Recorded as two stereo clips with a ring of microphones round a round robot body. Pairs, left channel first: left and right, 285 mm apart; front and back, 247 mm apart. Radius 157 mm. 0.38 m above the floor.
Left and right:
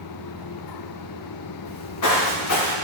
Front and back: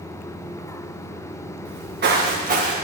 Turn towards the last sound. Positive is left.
turn(degrees=120)